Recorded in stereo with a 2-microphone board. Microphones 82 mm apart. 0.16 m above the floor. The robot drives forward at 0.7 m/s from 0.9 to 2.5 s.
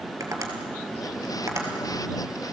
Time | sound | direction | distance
0.2 | tapping | 40° right (ahead or behind) | 2.5 m